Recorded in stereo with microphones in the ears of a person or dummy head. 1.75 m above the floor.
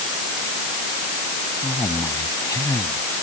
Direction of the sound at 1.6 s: 20° left (ahead or behind).